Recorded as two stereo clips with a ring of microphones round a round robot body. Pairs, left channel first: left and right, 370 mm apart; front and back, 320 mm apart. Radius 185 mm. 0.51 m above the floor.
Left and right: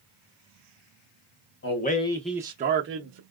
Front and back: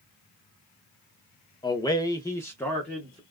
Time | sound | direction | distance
1.6 | a man speaking | 70° left | 0.7 m